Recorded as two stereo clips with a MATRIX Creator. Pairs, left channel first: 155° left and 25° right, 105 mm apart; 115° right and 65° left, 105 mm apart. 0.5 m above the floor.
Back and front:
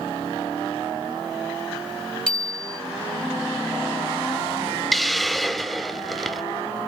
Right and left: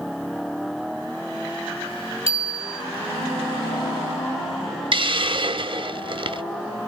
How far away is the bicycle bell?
About 2 m.